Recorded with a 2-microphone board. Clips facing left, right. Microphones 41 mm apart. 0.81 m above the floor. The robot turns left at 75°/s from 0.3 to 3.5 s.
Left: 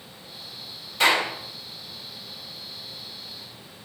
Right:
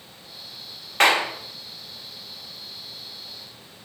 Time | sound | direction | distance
1.0 | a clap | 60° right (ahead or behind) | 0.8 m